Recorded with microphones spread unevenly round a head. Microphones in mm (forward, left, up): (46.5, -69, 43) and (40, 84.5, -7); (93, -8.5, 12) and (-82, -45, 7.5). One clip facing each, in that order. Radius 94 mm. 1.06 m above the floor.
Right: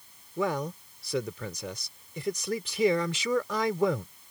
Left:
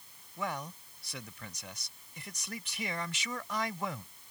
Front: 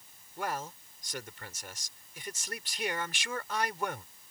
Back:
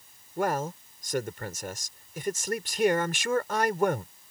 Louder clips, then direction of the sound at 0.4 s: Right 9 dB, back 9 dB; 125° right.